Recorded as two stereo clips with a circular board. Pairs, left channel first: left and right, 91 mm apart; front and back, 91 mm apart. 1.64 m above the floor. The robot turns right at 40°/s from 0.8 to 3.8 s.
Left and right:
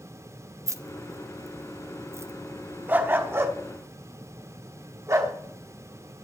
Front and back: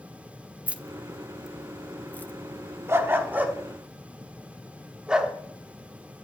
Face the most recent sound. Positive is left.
turn(degrees=-105)